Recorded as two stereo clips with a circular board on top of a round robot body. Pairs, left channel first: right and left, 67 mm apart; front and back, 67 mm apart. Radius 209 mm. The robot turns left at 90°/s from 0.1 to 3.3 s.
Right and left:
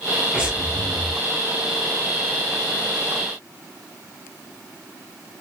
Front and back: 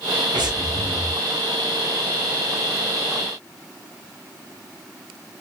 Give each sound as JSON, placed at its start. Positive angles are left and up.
{"t": 0.3, "sound": "breathing", "azimuth_deg": 175, "distance_m": 0.7}